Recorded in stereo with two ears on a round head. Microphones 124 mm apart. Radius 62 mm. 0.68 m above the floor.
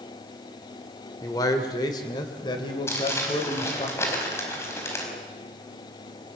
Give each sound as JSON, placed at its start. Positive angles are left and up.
{"t": 1.2, "sound": "a man speaking", "side_deg": 25, "distance_m": 1.8}
{"t": 2.9, "sound": "crumpling", "side_deg": 20, "distance_m": 5.0}